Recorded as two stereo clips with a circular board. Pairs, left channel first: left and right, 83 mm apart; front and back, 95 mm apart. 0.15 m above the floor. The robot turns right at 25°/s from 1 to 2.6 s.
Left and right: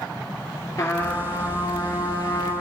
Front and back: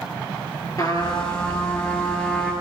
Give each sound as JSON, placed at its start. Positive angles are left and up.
{"t": 0.8, "sound": "a trumpet", "azimuth_deg": 40, "distance_m": 2.0}